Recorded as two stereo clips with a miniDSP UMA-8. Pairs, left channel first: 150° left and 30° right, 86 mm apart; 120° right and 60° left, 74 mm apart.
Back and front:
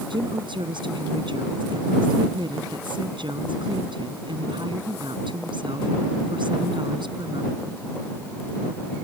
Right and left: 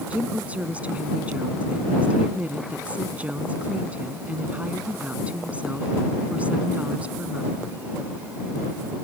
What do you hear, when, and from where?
0.1 s a woman speaking: 10° right